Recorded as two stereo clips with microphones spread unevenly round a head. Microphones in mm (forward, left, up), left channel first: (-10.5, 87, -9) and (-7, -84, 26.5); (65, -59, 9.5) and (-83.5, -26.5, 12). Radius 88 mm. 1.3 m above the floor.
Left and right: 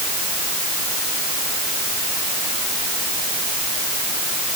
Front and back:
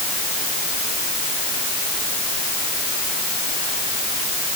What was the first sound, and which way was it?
Only background noise.